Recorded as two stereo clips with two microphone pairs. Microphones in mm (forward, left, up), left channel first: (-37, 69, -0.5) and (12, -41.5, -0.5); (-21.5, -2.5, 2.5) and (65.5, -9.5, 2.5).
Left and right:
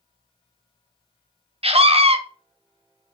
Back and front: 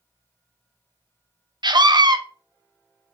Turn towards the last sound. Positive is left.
turn(degrees=-35)